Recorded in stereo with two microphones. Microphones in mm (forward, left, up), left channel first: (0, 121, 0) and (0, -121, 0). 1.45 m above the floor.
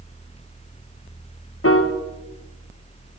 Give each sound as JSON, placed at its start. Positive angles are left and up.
{"t": 1.6, "sound": "a piano", "side_deg": 65, "distance_m": 0.8}